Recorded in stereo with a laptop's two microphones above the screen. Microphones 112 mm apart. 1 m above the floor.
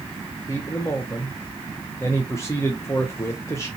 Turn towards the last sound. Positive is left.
turn(degrees=25)  # may be behind; listen again after turning